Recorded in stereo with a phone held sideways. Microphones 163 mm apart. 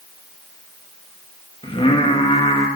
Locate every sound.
1.6 s singing: 35° left (ahead or behind), 1.3 m